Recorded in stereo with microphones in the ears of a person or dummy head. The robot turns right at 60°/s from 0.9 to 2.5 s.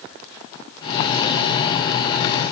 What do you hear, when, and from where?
Only background noise.